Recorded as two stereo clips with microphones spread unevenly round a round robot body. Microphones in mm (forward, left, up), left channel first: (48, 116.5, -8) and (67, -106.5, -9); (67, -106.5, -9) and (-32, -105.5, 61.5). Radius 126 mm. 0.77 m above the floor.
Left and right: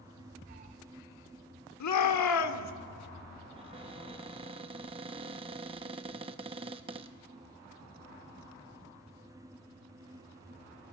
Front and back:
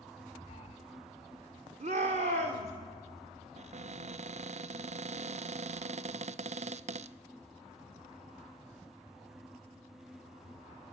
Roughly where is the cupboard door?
Behind right.